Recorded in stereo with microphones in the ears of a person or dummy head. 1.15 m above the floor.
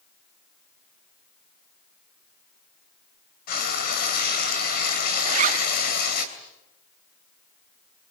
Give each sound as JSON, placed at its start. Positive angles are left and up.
{"t": 3.5, "sound": "frying", "side_deg": 55, "distance_m": 2.5}
{"t": 5.2, "sound": "a zipper", "side_deg": -45, "distance_m": 0.9}